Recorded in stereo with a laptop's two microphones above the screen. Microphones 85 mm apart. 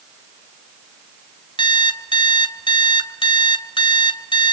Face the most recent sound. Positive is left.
turn(degrees=75)  # may be behind; listen again after turning